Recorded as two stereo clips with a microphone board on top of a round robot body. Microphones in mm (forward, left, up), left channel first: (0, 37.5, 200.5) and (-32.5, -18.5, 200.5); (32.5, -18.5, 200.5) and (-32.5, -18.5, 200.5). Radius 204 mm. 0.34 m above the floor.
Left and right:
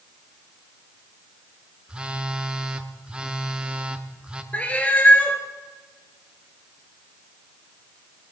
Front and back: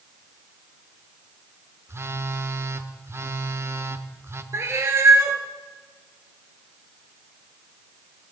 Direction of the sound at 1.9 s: 170° left.